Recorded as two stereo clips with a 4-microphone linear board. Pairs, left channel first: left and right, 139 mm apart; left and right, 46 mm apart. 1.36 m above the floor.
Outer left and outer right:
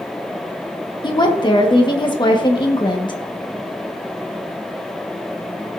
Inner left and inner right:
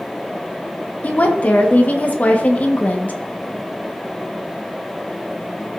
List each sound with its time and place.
1.0 s a woman speaking: 35° left (ahead or behind), 1.3 m